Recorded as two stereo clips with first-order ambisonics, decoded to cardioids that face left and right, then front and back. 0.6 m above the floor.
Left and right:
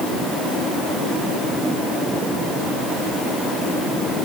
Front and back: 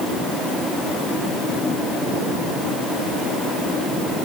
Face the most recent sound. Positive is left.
No sound to turn to.